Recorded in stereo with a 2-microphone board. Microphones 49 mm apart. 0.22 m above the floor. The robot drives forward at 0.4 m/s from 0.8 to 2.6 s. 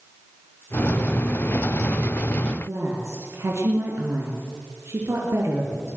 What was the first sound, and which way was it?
A woman speaking, 70° right (ahead or behind).